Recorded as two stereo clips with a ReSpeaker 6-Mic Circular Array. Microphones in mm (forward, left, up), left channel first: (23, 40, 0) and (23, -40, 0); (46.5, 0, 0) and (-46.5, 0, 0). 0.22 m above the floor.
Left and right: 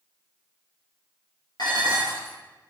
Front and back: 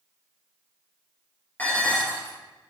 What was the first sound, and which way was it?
Dishes clattering, 70° left.